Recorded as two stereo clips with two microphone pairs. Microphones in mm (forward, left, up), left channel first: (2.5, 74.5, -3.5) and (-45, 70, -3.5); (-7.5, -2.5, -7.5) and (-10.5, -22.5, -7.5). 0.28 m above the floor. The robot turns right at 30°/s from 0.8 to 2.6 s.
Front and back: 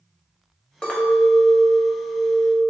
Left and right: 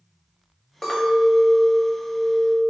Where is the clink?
55° left, 0.6 m; by 2.7 s 110° left, 0.6 m.